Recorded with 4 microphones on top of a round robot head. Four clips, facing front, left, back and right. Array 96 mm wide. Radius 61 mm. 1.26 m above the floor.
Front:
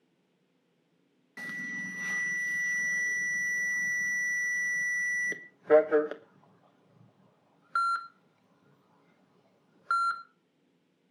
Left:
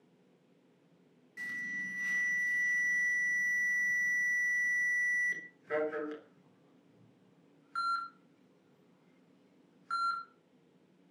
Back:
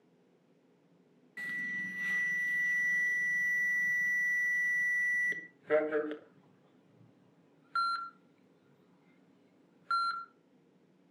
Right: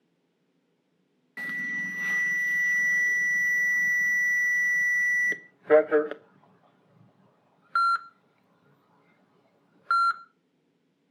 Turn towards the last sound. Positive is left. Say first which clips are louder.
# right 7 dB, front 1 dB
turn(degrees=-60)